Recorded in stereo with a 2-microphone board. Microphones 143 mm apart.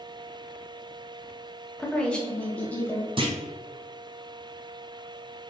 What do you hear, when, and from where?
1.8 s a woman speaking: 5° left (ahead or behind), 0.8 m; by 3.1 s 10° left (ahead or behind), 1.6 m
3.2 s a clunk: 35° right (ahead or behind), 0.8 m